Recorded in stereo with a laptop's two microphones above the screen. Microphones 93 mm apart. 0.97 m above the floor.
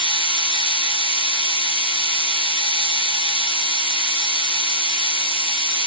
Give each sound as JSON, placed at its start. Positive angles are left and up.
{"t": 0.0, "sound": "a machine running", "side_deg": 70, "distance_m": 1.5}